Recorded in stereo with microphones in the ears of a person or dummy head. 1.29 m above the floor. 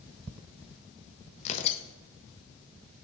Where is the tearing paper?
40° left (ahead or behind), 0.7 m.